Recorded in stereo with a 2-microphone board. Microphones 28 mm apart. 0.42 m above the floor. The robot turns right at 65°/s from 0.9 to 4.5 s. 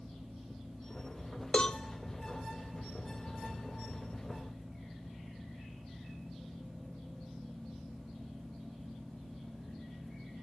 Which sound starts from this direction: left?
A cowbell, at 1.5 s.